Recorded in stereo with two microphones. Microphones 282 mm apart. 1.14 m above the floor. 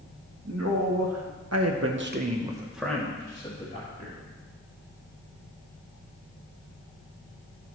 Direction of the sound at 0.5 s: 60° right (ahead or behind).